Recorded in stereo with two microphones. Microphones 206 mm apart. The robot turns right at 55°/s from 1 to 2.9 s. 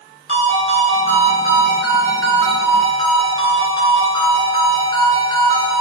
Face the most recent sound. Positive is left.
turn(degrees=40)